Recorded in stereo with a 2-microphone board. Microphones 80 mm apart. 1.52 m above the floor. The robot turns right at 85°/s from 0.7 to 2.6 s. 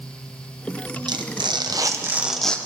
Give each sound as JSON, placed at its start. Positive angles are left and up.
{"t": 1.1, "sound": "tearing paper", "azimuth_deg": -115, "distance_m": 0.7}